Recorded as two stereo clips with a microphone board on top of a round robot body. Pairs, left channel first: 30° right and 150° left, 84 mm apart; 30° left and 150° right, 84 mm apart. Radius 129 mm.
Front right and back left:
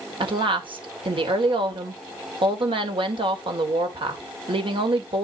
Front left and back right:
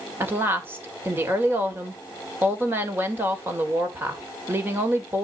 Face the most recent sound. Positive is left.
turn(degrees=145)